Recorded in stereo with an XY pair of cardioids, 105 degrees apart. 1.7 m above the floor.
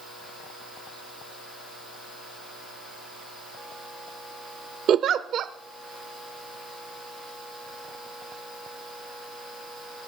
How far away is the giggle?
About 0.6 m.